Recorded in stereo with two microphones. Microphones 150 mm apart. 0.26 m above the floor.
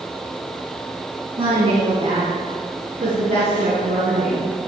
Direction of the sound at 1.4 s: 45° right (ahead or behind).